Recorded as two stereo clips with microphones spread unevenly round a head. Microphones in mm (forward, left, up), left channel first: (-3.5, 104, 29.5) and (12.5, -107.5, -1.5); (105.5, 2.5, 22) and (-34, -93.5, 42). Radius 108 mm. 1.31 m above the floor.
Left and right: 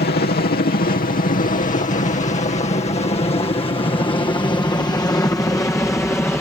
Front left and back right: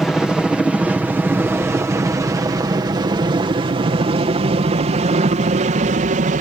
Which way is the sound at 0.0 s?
120° left.